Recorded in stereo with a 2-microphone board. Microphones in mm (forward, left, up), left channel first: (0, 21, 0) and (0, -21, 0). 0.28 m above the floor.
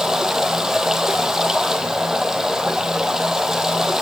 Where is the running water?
10° right (ahead or behind), 2.5 m.